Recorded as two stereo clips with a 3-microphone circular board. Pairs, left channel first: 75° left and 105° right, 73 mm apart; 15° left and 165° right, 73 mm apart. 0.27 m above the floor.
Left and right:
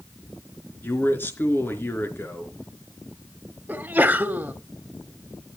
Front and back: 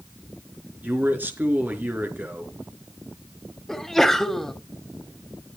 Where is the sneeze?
65° right, 1.5 m.